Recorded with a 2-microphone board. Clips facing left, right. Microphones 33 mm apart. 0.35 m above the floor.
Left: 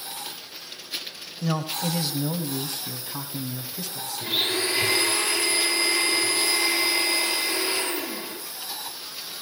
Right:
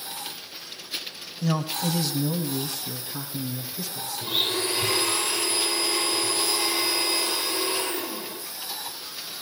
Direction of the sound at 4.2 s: 70° left (ahead or behind).